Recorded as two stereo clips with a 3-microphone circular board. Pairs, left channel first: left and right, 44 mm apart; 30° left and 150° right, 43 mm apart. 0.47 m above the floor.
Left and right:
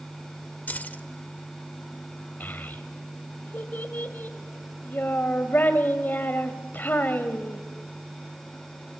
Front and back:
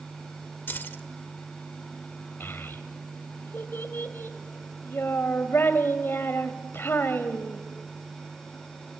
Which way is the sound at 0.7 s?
50° left.